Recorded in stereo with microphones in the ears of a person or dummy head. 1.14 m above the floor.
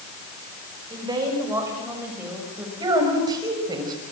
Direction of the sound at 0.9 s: 15° right (ahead or behind).